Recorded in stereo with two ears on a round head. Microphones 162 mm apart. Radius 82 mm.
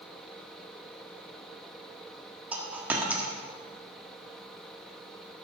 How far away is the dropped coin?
About 1.6 m.